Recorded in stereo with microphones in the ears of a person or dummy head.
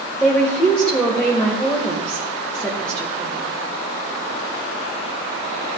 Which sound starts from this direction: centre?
A woman speaking, at 0.2 s.